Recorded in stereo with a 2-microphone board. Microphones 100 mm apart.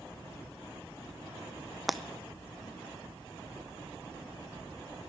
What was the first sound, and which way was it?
Breaking glass, centre (ahead or behind).